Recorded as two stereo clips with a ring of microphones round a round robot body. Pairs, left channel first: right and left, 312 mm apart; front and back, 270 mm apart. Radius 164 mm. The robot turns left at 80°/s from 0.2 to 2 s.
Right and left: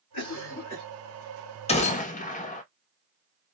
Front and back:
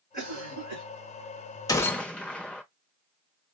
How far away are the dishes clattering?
No dishes clattering in this recording.